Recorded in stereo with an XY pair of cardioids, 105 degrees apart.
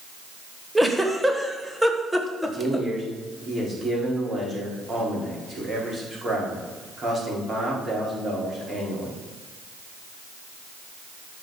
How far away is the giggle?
About 1.3 m.